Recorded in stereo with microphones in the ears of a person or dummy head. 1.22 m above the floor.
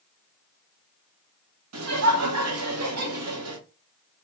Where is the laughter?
75° right (ahead or behind), 1.1 m.